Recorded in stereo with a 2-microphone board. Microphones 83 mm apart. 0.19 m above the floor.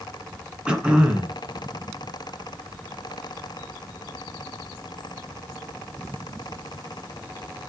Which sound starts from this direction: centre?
Throat clearing, at 0.7 s.